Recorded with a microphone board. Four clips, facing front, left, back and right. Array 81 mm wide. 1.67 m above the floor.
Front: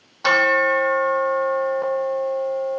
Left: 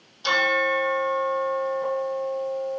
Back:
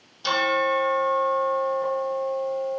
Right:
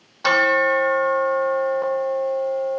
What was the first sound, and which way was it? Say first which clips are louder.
A bell: right 5 dB, front 5 dB; 45° right.